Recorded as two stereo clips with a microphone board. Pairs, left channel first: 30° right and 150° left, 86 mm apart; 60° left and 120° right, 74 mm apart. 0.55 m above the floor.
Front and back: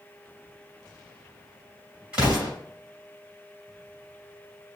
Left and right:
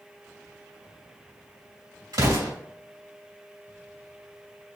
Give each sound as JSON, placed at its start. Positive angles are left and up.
{"t": 2.1, "sound": "an explosion", "azimuth_deg": -135, "distance_m": 2.5}